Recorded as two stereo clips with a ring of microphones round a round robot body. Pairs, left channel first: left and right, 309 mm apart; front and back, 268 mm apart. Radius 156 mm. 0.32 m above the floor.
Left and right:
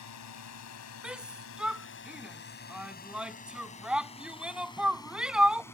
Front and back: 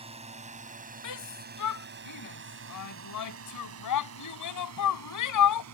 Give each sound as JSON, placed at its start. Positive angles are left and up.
{"t": 0.0, "sound": "a drone", "azimuth_deg": 115}
{"t": 1.0, "sound": "a shout", "azimuth_deg": -5}